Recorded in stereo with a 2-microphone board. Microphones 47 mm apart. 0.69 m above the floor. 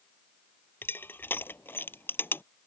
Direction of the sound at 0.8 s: 50° left (ahead or behind).